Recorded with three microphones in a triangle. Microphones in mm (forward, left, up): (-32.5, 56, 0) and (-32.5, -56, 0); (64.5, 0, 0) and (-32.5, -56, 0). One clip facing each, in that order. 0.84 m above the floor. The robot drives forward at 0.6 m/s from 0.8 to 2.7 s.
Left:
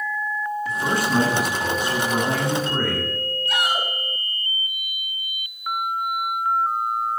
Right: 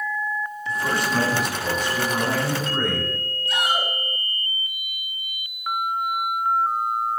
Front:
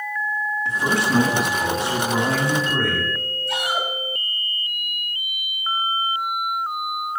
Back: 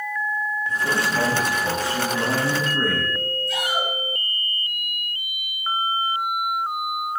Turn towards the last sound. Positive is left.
turn(degrees=55)